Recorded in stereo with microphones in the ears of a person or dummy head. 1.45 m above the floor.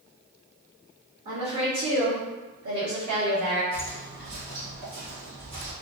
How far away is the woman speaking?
About 1.0 m.